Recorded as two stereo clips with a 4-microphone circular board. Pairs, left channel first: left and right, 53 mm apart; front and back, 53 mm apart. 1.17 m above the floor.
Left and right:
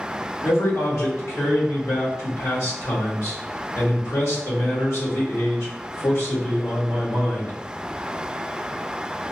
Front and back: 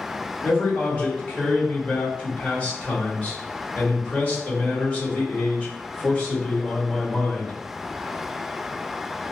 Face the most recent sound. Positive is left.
turn(degrees=60)